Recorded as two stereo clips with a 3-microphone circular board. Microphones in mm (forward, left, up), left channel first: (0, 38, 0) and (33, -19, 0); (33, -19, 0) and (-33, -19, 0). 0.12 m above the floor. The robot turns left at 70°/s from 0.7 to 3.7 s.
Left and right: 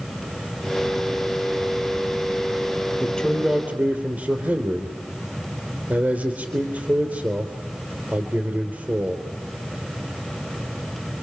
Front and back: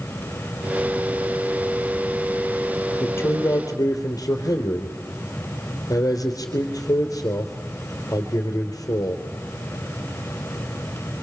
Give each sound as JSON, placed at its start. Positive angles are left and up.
{"t": 3.0, "sound": "a man speaking", "azimuth_deg": 55, "distance_m": 3.0}